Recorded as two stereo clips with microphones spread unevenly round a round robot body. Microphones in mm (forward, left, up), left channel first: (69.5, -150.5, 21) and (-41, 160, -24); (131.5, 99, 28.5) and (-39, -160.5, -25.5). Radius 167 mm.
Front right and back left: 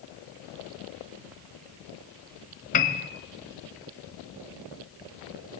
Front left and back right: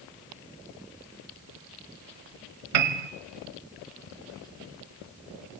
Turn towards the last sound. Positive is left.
turn(degrees=-135)